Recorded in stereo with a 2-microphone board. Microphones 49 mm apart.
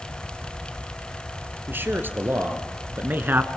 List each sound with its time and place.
1.7 s a man speaking: 45° right (ahead or behind), 3 m; by 3.5 s 40° right (ahead or behind), 1.6 m